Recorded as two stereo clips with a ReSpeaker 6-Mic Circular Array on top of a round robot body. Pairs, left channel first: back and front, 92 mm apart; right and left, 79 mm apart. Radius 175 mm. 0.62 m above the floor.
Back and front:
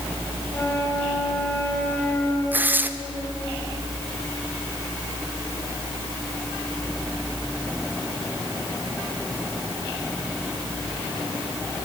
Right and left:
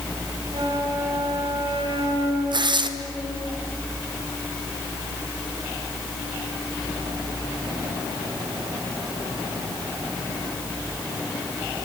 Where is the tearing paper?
70° left, 1.7 m.